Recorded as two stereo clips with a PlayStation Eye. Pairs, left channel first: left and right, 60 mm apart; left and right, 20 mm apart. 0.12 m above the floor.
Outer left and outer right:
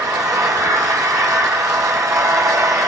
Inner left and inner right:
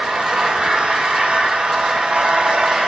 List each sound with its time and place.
0.0 s an engine running: 75° right (ahead or behind), 2.5 m